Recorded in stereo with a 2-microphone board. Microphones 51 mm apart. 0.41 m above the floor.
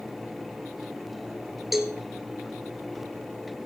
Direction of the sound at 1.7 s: 5° right (ahead or behind).